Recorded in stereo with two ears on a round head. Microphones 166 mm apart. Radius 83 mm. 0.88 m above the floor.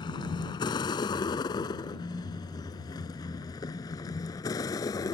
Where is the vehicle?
25° left (ahead or behind); by 5.2 s 20° left (ahead or behind).